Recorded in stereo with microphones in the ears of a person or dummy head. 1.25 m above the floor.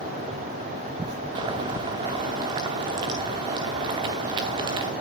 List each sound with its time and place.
1.4 s boiling: 30° right (ahead or behind), 0.9 m